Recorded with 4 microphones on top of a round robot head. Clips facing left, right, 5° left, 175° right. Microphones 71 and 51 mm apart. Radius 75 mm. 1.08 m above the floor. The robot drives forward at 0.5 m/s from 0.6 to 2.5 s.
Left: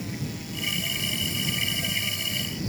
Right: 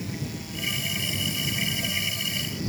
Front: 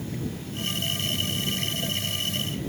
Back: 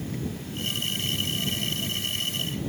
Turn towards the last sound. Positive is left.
No sound to turn to.